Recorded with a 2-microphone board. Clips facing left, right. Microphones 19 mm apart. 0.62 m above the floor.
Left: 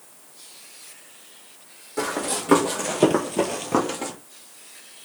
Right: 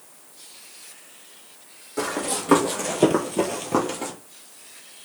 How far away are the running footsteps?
About 1.2 m.